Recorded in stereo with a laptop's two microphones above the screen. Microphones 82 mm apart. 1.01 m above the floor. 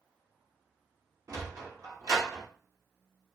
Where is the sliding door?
45° right (ahead or behind), 0.7 m.